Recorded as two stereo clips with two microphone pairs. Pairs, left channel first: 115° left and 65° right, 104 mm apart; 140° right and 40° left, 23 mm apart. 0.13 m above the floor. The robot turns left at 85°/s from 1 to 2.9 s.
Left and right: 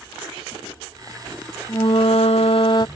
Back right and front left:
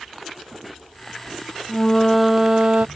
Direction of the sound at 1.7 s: 165° left.